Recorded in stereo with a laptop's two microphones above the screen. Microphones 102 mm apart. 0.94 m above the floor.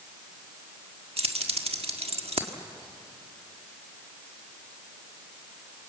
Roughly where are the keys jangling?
Right.